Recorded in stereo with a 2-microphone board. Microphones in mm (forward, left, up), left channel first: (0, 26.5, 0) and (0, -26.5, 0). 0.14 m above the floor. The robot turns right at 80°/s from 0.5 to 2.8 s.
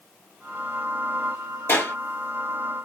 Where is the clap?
45° left (ahead or behind), 1.5 m; by 1.9 s 55° left (ahead or behind), 1.5 m.